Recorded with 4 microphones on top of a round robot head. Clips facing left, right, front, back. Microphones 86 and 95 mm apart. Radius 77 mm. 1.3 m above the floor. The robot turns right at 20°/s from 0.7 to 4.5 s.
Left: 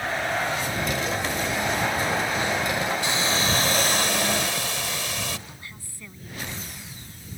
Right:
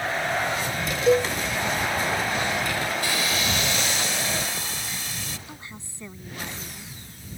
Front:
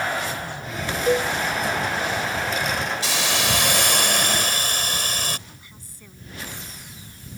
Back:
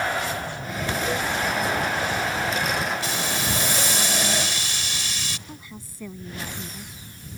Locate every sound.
1.1 s a cowbell: 65° right; by 1.3 s 55° right
3.0 s a hiss: 15° left; by 5.4 s 45° left
5.5 s a woman speaking: 155° right